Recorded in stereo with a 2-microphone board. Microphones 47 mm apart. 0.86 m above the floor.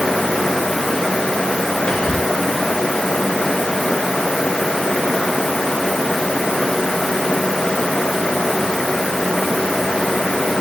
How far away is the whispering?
About 0.7 m.